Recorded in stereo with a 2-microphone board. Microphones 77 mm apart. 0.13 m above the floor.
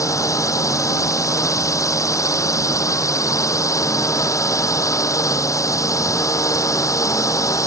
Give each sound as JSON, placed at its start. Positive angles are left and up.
{"t": 0.0, "sound": "a drone", "side_deg": 45}